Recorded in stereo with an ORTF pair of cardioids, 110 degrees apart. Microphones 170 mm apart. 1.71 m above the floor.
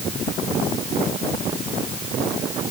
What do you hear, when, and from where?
Only background noise.